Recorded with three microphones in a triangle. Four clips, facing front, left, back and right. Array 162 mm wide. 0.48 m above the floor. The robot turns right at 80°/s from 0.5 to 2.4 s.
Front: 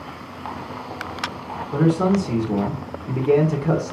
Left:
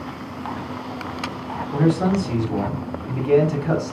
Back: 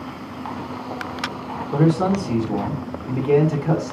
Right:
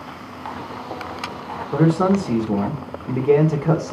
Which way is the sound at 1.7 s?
120° right.